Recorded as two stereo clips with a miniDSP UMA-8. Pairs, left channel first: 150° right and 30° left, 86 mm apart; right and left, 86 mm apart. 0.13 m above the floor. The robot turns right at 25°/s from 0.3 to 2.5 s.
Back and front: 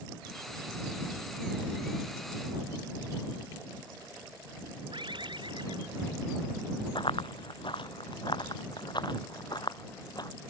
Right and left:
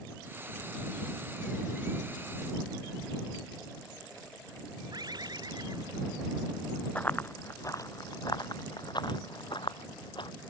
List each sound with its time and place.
4.9 s a bird: 50° left
7.0 s running footsteps: 165° right; by 10.3 s 115° right